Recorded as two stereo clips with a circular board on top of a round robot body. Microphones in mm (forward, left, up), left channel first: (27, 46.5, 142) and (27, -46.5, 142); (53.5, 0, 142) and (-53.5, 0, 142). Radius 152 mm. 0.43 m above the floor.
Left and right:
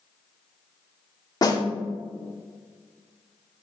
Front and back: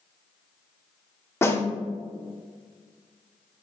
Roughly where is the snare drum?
Ahead left.